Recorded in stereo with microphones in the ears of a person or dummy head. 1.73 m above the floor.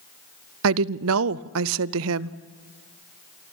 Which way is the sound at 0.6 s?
70° right (ahead or behind).